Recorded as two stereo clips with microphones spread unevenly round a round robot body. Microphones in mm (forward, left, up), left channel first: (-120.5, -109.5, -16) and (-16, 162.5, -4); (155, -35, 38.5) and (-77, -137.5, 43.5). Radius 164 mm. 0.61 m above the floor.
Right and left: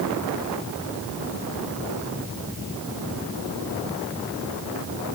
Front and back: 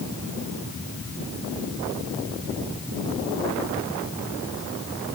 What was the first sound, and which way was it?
Only background noise.